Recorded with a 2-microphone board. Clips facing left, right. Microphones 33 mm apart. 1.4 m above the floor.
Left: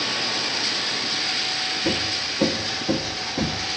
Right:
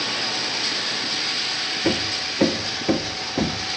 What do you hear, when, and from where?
1.8 s hammering: 65° right (ahead or behind), 1.6 m